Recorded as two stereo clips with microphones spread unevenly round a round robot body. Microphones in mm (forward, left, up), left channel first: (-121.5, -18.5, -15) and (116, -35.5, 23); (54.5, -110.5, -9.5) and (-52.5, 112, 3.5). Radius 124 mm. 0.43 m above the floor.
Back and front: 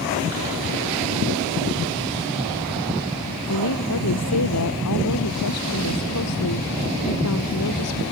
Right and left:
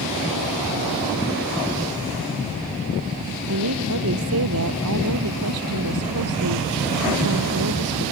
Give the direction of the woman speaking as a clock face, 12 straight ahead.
7 o'clock.